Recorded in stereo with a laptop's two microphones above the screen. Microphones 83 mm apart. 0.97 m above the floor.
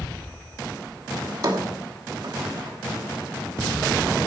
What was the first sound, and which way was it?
A drawer, 55° right (ahead or behind).